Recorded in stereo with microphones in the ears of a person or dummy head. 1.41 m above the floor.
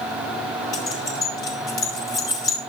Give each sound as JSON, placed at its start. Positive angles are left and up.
{"t": 0.7, "sound": "keys jangling", "side_deg": 25, "distance_m": 2.0}